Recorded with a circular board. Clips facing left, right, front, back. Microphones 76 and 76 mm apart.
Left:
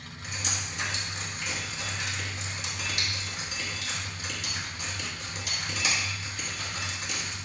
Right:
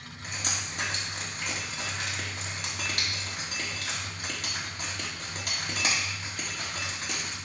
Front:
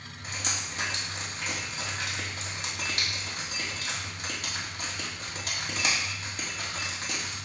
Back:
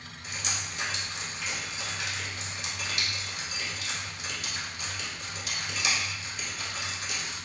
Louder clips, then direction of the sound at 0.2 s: Even, front 1 dB; 50° right.